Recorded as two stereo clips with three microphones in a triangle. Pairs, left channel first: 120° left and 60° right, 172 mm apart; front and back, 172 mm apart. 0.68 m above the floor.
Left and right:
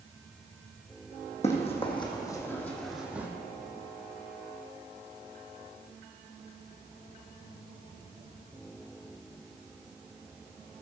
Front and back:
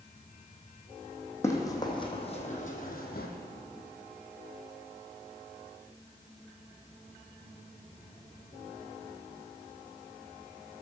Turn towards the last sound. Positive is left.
turn(degrees=20)